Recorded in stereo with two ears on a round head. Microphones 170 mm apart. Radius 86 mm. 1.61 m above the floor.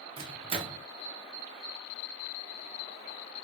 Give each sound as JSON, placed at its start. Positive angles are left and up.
{"t": 0.2, "sound": "a microwave", "side_deg": -30, "distance_m": 0.6}